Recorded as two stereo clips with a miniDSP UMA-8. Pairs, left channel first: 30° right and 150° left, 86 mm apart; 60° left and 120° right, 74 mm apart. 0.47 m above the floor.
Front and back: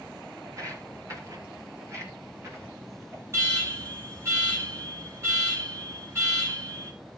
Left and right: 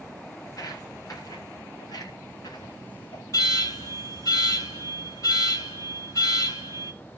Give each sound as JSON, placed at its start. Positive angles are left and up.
{"t": 0.5, "sound": "footsteps", "azimuth_deg": 105, "distance_m": 5.0}
{"t": 3.3, "sound": "an alarm", "azimuth_deg": 95, "distance_m": 6.0}